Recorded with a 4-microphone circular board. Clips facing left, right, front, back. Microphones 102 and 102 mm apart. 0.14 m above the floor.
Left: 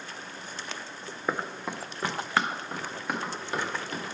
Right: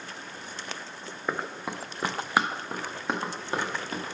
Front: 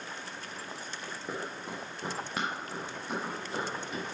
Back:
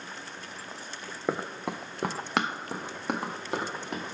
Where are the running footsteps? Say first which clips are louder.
Left 1 dB, back 8 dB; 175° left, 0.6 m; by 4.0 s 155° right, 2 m.